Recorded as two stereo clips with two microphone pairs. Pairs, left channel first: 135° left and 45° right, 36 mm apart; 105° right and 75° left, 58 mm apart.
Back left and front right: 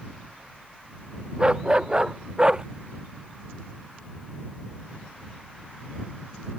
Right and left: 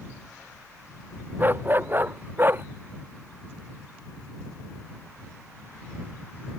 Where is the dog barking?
20° left; by 2.6 s 25° left.